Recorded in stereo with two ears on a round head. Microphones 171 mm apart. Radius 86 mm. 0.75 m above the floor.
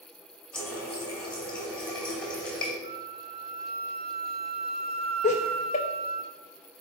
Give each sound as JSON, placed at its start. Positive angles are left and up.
{"t": 0.5, "sound": "a running tap", "side_deg": 5, "distance_m": 2.0}
{"t": 2.8, "sound": "a flute", "side_deg": -30, "distance_m": 0.5}
{"t": 5.2, "sound": "laughter", "side_deg": 35, "distance_m": 0.5}